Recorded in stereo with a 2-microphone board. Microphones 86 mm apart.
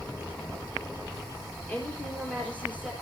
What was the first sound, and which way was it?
A woman speaking, 15° left (ahead or behind).